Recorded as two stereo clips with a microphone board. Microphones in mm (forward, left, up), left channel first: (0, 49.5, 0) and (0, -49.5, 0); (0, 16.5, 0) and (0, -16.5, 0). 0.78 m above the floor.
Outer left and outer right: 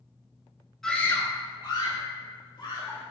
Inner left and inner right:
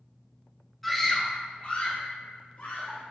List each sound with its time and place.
0.8 s a scream: 5° left (ahead or behind), 0.9 m; by 3.0 s 55° left (ahead or behind), 4 m